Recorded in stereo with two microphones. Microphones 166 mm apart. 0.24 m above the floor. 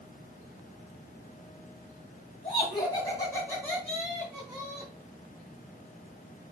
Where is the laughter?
35° left (ahead or behind), 1.9 m; by 4.9 s 20° right (ahead or behind), 2 m.